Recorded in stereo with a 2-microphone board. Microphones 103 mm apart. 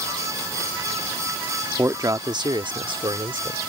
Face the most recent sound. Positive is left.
turn(degrees=-55)  # may be behind; listen again after turning